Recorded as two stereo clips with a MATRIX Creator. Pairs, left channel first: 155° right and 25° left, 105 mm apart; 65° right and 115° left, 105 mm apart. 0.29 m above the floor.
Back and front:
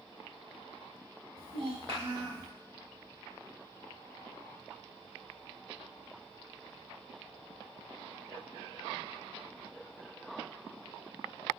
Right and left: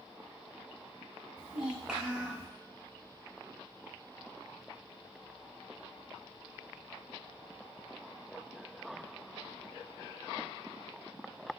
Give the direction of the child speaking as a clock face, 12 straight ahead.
11 o'clock.